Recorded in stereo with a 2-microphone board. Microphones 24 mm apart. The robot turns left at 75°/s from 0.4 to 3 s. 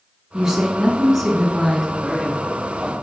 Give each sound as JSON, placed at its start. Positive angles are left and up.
{"t": 0.3, "sound": "a woman speaking", "side_deg": -20, "distance_m": 1.3}
{"t": 1.9, "sound": "a man speaking", "azimuth_deg": -60, "distance_m": 1.6}